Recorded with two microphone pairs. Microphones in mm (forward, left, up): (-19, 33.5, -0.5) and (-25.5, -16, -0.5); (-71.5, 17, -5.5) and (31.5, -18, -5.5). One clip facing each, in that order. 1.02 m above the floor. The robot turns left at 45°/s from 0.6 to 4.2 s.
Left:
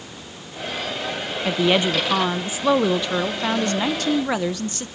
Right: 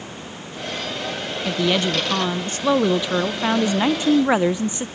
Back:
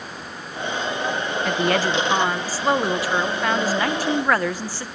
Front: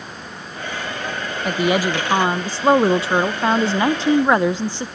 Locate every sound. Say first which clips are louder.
1.4 s a woman speaking: left 2 dB, front 3 dB; 65° left, 0.6 m; by 4.9 s 60° right, 0.6 m